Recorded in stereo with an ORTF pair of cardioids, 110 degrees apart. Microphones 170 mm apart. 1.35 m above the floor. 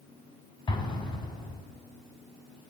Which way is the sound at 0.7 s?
30° left.